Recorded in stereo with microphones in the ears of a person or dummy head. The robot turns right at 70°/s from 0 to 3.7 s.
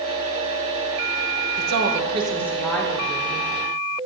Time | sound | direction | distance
1.6 | a woman speaking | 75° right | 1.0 m